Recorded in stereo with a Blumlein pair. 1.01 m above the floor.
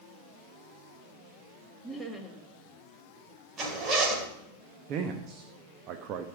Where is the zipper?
25° right, 4 m.